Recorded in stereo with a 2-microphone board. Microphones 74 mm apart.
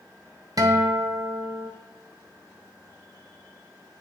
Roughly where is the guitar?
Right.